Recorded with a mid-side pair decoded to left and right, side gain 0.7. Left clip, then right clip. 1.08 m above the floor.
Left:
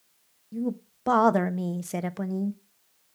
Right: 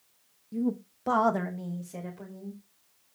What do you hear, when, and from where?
0.5 s a woman speaking: straight ahead, 1.1 m; by 2.6 s 75° left, 0.9 m